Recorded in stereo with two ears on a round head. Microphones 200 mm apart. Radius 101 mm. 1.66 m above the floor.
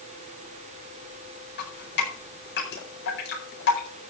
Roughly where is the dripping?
Left.